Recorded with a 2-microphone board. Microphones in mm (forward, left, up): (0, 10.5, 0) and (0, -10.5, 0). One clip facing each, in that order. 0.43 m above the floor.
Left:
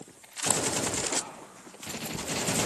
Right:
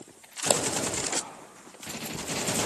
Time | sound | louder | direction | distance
0.5 | a pop | right 4 dB | 75° right (ahead or behind) | 2.0 m